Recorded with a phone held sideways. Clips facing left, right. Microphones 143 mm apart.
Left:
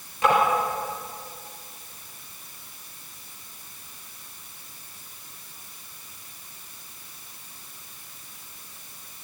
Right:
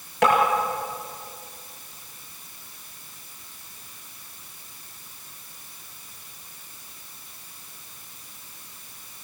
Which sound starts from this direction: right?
Tapping, at 0.2 s.